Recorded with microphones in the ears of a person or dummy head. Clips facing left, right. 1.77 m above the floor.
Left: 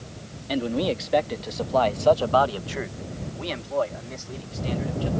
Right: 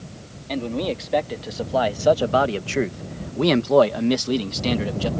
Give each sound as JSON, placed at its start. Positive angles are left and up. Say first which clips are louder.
{"t": 0.5, "sound": "a man speaking", "louder": "left 1 dB", "side_deg": 10}